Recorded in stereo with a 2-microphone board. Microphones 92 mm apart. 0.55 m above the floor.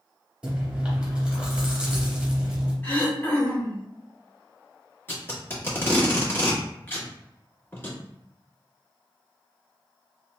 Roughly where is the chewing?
Centre.